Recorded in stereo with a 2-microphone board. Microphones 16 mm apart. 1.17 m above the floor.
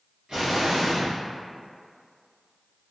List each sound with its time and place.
0.3 s an explosion: 70° right (ahead or behind), 1.7 m